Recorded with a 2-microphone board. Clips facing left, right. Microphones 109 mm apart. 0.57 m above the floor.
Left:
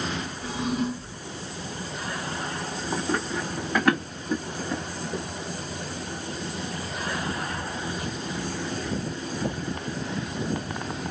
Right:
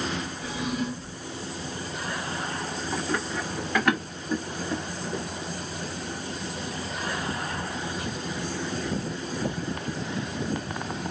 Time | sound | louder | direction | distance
0.4 | a drawer | left 4 dB | 35° left (ahead or behind) | 1.8 m
2.9 | running footsteps | left 2 dB | 25° left (ahead or behind) | 2.0 m